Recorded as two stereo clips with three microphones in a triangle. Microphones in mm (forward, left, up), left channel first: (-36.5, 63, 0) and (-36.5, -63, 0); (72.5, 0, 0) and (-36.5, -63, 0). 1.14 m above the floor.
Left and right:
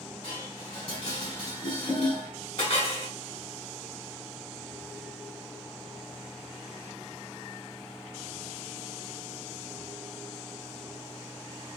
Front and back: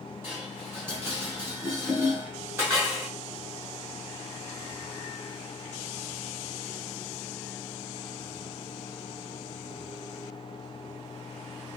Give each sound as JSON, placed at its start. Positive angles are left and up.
{"t": 0.2, "sound": "dishes clattering", "azimuth_deg": 140, "distance_m": 1.7}